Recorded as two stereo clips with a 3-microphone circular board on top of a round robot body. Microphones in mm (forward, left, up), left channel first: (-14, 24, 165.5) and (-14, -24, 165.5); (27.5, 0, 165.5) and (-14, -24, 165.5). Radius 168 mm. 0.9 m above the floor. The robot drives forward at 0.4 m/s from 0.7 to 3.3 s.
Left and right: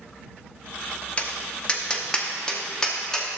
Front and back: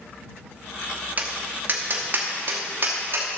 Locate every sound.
1.2 s tapping: 155° left, 0.6 m; by 3.3 s 170° left, 1.4 m